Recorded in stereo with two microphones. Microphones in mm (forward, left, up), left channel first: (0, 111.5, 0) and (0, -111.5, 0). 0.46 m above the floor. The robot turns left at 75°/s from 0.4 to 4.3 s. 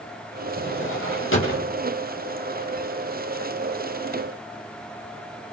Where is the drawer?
50° left (ahead or behind), 8 m.